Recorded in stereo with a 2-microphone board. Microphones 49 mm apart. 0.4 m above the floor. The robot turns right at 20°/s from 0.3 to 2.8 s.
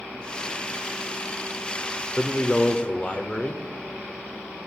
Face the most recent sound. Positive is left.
turn(degrees=25)  # may be behind; listen again after turning